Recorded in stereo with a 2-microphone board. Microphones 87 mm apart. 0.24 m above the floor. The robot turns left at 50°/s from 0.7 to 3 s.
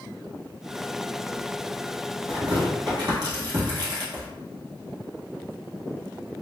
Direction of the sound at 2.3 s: 85° right.